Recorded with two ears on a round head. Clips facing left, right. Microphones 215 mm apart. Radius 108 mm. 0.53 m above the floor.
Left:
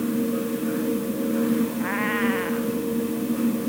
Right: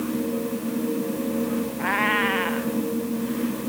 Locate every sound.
1.8 s a cat meowing: 60° right (ahead or behind)